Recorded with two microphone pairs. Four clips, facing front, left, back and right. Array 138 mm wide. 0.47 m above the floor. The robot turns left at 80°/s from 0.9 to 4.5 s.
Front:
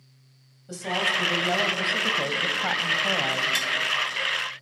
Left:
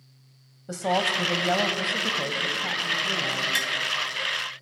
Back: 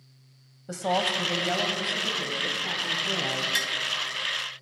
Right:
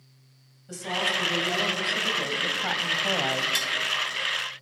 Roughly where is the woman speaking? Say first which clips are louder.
Left 5 dB, back 2 dB; behind left.